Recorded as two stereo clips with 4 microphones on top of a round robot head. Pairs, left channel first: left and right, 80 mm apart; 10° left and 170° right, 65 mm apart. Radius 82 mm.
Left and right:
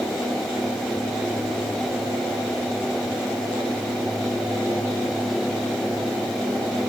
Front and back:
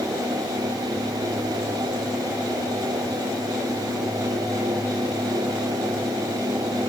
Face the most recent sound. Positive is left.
No sound to turn to.